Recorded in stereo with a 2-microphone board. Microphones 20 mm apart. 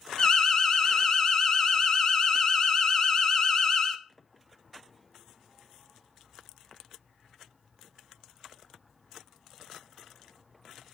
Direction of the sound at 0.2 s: 30° left (ahead or behind).